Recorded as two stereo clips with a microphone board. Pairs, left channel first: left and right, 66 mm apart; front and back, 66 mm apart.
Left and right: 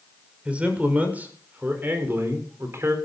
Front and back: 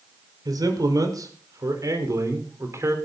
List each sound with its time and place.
0.5 s a man speaking: 160° right, 5.5 m; by 3.0 s 135° right, 4.5 m